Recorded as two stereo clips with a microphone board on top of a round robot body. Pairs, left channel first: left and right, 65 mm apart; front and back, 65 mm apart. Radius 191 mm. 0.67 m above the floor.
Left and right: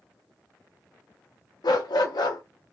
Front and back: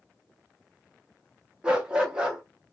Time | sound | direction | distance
1.6 | a dog barking | 105° left | 0.6 m